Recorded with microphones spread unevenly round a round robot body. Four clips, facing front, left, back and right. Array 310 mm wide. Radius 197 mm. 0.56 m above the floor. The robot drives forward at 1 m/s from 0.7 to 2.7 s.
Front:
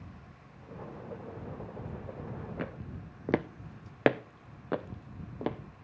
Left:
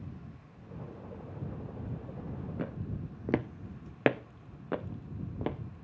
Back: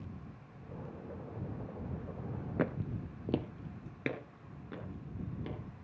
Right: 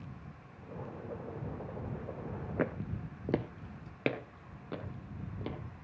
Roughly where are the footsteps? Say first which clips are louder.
Right 6 dB, back 5 dB; behind right.